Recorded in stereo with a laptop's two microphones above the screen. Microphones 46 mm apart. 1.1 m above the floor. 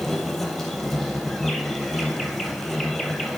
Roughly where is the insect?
Centre.